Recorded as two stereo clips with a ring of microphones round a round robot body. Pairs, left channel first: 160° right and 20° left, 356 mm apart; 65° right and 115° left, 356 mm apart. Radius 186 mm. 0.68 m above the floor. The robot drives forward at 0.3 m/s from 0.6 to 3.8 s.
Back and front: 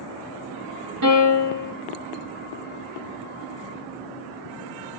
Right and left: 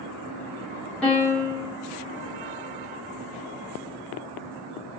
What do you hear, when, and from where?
1.0 s a piano: 20° left, 1.4 m; by 1.8 s 25° left, 1.2 m